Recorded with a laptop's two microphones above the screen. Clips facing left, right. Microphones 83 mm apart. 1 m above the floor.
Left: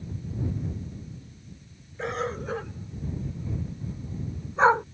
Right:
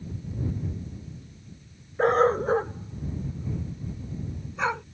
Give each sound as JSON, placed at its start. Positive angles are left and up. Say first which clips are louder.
{"t": 2.0, "sound": "a dog barking", "louder": "right 10 dB", "side_deg": -45}